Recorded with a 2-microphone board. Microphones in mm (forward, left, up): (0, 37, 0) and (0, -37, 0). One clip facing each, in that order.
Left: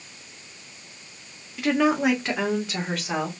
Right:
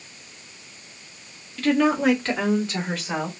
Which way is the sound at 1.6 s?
10° left (ahead or behind).